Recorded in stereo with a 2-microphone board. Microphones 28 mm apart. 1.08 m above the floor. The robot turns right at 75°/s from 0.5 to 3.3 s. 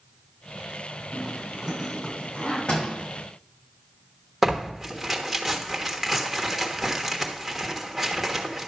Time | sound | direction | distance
1.1 | a zipper | 75° right (ahead or behind) | 5.5 m
2.7 | a door slam | 35° left (ahead or behind) | 4 m
4.4 | tearing paper | 5° right (ahead or behind) | 1.2 m